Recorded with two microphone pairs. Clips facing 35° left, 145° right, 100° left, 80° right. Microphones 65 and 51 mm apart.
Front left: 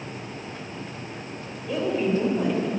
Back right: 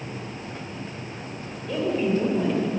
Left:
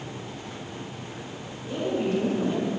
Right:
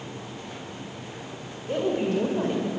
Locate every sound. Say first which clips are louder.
1.7 s a woman speaking: even, right 1 dB; 45° right, 3 m; by 2.7 s 50° right, 2.5 m